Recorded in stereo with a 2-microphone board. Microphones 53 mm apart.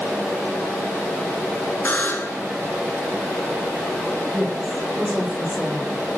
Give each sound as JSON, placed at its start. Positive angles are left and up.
{"t": 1.9, "sound": "a buzzer", "side_deg": 35, "distance_m": 1.4}
{"t": 4.3, "sound": "a woman speaking", "side_deg": -5, "distance_m": 7.0}